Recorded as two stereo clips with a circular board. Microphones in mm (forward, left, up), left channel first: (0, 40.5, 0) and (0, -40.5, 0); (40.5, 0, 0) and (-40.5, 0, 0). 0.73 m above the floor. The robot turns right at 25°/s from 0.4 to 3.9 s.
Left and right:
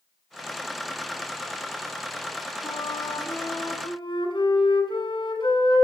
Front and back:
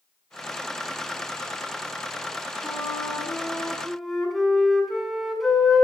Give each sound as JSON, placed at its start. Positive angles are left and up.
{"t": 2.6, "sound": "a flute", "azimuth_deg": 60, "distance_m": 7.0}